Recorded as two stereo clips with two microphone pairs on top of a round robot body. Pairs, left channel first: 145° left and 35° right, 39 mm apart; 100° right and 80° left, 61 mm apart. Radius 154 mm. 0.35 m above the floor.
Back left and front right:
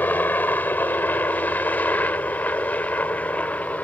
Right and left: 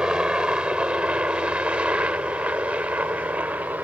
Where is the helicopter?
145° left; by 3.8 s 125° left.